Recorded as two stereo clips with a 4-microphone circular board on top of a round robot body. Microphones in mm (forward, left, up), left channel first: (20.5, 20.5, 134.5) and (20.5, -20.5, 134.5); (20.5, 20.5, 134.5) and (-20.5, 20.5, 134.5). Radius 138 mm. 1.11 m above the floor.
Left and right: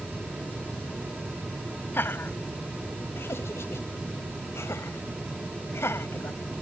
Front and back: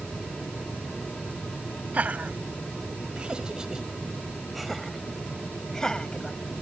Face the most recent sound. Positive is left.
turn(degrees=65)